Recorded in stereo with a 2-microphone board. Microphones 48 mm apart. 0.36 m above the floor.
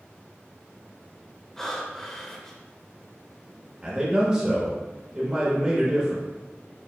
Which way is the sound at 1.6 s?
10° left (ahead or behind).